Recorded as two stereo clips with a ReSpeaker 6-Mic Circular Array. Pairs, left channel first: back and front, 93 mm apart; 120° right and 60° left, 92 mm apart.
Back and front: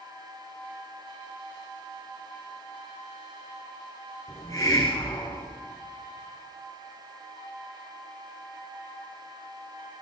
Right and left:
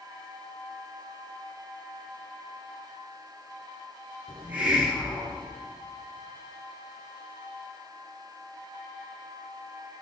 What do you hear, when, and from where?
4.3 s a hiss: 130° left, 7.5 m